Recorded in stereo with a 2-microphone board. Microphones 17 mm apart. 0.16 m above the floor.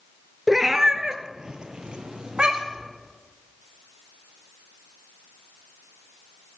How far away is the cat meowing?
About 0.8 m.